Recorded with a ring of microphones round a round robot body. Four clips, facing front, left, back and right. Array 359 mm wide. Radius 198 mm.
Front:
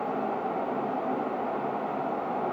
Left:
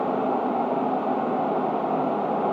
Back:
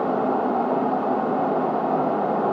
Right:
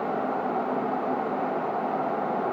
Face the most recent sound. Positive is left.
No sound to turn to.